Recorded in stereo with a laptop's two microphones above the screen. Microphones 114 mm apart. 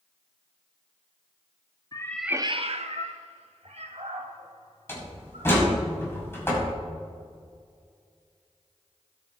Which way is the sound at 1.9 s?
30° left (ahead or behind).